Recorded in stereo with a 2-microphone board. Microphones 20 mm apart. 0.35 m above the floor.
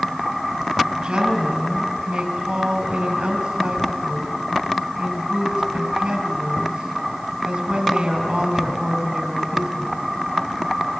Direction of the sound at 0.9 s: 65° right (ahead or behind).